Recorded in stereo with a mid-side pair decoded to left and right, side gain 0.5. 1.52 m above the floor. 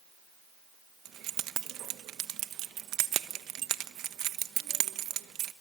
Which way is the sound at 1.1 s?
70° right.